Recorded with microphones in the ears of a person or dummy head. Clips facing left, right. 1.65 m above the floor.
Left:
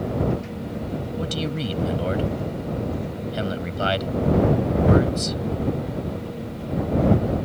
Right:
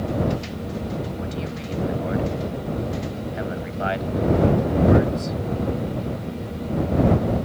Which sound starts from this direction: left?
A man speaking, at 1.2 s.